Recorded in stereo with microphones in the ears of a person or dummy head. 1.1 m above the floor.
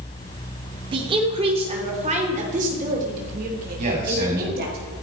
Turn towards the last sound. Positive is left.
turn(degrees=-45)  # may be behind; listen again after turning